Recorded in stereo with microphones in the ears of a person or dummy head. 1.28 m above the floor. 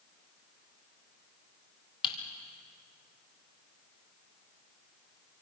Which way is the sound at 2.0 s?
25° left (ahead or behind).